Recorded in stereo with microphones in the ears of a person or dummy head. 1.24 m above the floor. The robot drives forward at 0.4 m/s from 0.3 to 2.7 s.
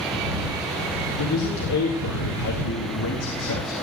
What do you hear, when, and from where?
1.2 s a man speaking: 90° left, 1.7 m; by 3.7 s 70° left (ahead or behind), 1.8 m